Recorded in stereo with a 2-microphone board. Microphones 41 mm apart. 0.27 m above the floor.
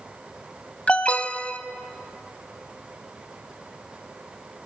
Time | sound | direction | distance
0.9 | an alarm | 35° left (ahead or behind) | 1.4 m